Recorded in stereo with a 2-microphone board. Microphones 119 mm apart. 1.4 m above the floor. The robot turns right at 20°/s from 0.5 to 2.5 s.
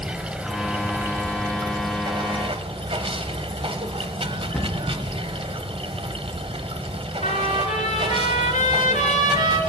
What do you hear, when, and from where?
0.0 s running water: 170° right, 0.8 m; by 9.7 s 130° right, 0.8 m
4.5 s a cupboard door: 10° left (ahead or behind), 1.1 m
7.2 s a trumpet: 75° left (ahead or behind), 2.0 m